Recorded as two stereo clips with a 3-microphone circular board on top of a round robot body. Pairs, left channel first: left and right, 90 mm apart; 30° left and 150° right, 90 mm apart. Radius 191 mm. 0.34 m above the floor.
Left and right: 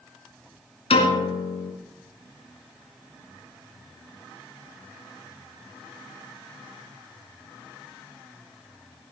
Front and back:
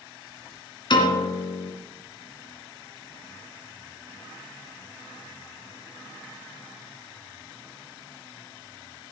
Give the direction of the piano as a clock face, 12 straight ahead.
10 o'clock.